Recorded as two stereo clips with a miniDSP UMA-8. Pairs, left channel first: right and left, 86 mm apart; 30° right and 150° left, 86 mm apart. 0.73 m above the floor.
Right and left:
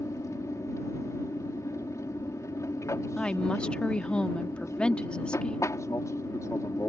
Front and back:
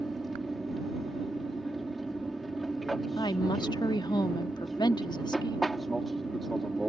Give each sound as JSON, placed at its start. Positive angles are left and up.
{"t": 0.0, "sound": "an aircraft", "azimuth_deg": -120}
{"t": 3.2, "sound": "a woman speaking", "azimuth_deg": -15}